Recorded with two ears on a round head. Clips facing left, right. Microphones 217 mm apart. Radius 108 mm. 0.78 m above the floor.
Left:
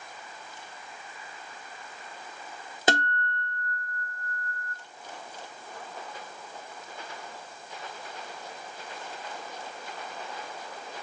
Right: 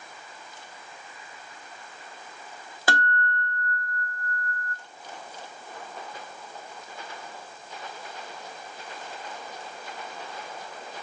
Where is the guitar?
20° left (ahead or behind), 0.7 m.